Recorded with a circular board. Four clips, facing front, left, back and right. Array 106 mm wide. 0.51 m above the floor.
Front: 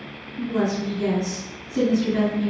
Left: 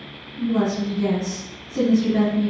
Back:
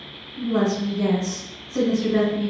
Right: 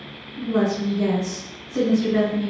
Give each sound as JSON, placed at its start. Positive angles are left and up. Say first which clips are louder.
{"t": 0.4, "sound": "a woman speaking", "louder": "even, back 2 dB", "azimuth_deg": -150, "distance_m": 2.0}